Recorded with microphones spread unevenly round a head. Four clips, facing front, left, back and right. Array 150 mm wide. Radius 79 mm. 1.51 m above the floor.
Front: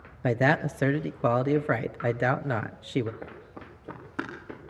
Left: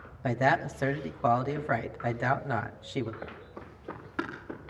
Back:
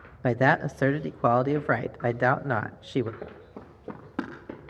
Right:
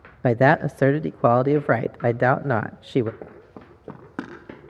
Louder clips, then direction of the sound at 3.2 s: Right 2 dB, back 1 dB; 115° right.